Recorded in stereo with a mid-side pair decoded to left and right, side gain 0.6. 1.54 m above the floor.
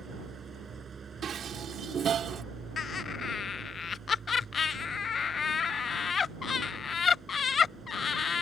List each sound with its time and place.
0.0 s an engine running: 30° right
1.2 s dishes clattering: 45° right
2.8 s laughter: 30° left